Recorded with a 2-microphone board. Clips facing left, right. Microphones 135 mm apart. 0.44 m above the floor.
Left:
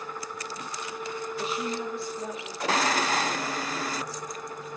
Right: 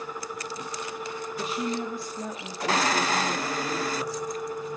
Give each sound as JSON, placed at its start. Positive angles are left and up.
{"t": 1.4, "sound": "a woman speaking", "side_deg": -40, "distance_m": 7.0}